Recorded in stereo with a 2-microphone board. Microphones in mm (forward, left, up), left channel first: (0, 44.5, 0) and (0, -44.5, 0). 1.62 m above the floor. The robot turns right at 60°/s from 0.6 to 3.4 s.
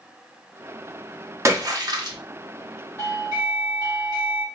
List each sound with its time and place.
1.4 s a splash: 135° right, 0.8 m; by 2.2 s 90° right, 0.8 m
3.0 s a doorbell: 25° left (ahead or behind), 1.9 m; by 4.5 s 50° left (ahead or behind), 1.9 m